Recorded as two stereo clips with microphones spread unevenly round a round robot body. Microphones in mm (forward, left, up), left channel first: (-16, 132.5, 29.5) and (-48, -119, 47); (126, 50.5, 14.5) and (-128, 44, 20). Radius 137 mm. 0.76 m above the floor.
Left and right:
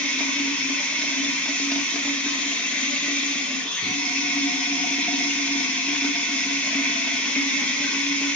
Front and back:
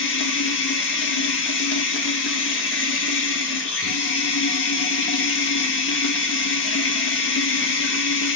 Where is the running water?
Straight ahead, 0.9 m.